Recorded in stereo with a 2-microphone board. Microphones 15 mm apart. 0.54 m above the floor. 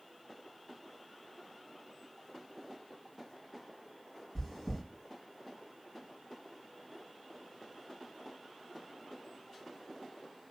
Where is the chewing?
15° right (ahead or behind), 2.5 m.